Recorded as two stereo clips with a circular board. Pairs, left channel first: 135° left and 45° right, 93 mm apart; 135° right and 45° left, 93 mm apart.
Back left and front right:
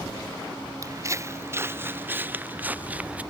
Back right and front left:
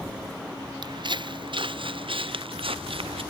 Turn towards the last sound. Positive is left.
turn(degrees=30)